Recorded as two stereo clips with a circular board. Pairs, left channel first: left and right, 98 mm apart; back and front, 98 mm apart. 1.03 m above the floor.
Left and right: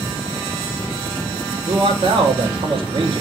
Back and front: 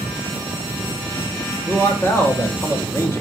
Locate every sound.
1.7 s a man speaking: 115° right, 1.8 m